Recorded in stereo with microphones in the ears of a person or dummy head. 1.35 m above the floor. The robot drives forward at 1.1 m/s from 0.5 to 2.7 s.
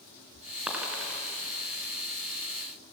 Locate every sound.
0.7 s a dropped coin: 5° right (ahead or behind), 3 m